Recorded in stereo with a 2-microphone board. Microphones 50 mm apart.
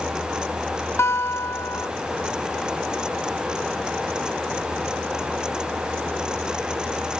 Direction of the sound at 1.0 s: 60° left (ahead or behind).